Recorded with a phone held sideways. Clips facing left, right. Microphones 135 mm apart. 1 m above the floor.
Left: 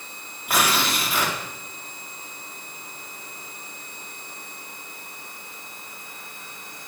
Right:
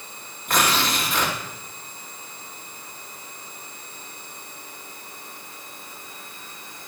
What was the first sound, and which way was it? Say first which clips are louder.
Tearing paper: even; 10° left (ahead or behind).